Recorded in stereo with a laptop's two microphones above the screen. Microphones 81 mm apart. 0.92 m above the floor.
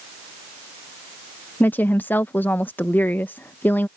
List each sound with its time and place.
1.6 s a woman speaking: 25° left (ahead or behind)